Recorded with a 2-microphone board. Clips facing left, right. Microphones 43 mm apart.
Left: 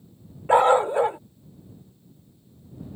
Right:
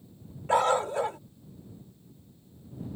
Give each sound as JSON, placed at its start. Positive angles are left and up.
{"t": 0.5, "sound": "a dog barking", "side_deg": 25}